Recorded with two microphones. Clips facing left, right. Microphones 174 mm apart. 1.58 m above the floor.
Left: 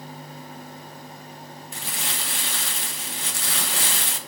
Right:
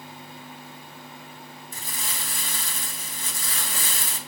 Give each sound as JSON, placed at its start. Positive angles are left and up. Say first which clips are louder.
{"t": 1.7, "sound": "crumpling", "louder": "left 3 dB", "side_deg": 75, "distance_m": 1.5}